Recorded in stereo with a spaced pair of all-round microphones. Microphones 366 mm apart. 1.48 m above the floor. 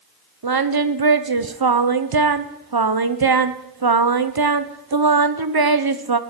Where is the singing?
80° right, 0.7 m.